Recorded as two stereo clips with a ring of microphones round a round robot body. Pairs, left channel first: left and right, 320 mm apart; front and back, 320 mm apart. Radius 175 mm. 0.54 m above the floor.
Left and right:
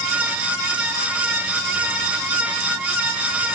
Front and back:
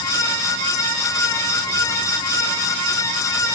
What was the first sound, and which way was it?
Only background noise.